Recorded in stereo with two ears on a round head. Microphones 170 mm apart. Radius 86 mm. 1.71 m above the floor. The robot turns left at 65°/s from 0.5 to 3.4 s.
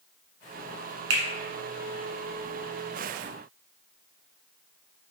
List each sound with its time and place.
1.1 s a finger snap: 70° right (ahead or behind), 1.2 m; by 1.2 s 75° right (ahead or behind), 1.2 m